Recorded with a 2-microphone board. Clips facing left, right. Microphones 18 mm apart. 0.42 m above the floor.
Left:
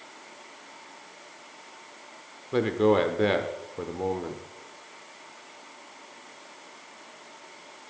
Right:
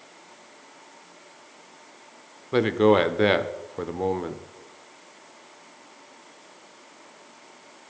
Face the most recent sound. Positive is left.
turn(degrees=-20)  # may be behind; listen again after turning